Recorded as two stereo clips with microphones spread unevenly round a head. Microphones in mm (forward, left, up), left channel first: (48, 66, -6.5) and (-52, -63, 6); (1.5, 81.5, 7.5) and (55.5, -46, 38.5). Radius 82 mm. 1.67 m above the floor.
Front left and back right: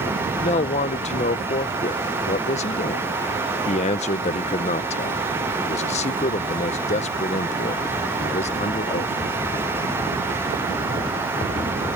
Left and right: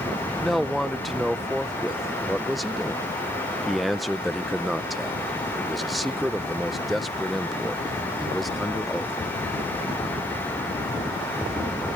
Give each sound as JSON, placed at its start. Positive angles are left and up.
{"t": 0.4, "sound": "a man speaking", "azimuth_deg": 10}